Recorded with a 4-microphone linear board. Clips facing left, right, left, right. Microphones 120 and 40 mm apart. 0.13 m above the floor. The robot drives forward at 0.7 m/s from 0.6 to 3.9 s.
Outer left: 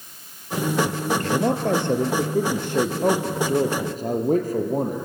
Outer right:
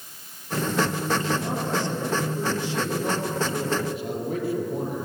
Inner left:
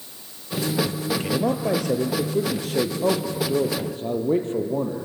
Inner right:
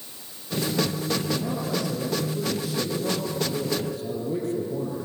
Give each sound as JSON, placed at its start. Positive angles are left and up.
{"t": 1.2, "sound": "a man speaking", "side_deg": 60, "distance_m": 2.5}